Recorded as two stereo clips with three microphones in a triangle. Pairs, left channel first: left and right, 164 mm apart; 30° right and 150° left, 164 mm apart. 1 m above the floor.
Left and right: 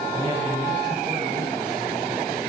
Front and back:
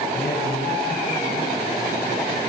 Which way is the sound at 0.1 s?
30° right.